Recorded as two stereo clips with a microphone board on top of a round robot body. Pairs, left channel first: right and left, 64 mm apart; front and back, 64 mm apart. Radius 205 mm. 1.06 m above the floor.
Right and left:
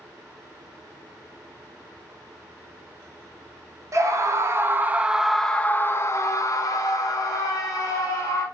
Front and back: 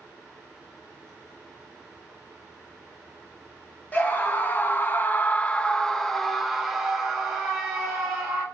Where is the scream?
60° left, 1.0 m; by 8.4 s 100° right, 1.6 m.